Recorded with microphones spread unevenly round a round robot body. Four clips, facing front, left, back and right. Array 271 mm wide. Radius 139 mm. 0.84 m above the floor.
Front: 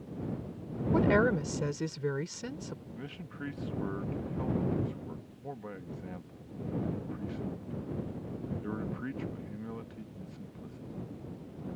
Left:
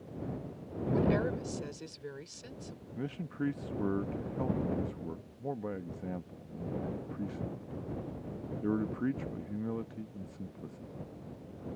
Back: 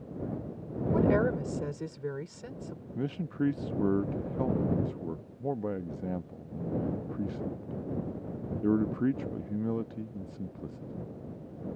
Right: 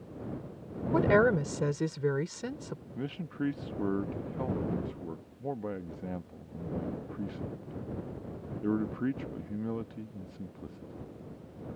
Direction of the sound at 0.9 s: 60° right.